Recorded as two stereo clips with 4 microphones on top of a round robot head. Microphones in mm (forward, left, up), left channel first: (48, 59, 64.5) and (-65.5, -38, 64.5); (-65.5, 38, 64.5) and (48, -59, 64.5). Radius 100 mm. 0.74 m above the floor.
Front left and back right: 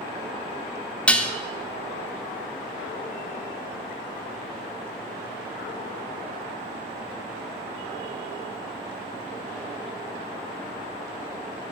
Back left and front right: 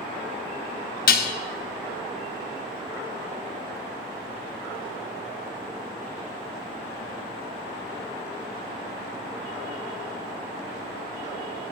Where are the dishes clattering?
125° left, 0.7 m.